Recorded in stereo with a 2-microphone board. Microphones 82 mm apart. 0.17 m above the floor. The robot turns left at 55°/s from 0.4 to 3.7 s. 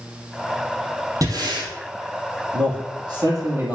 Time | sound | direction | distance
1.2 | breathing | 45° right (ahead or behind) | 2.5 m
2.5 | a man speaking | 80° right | 3 m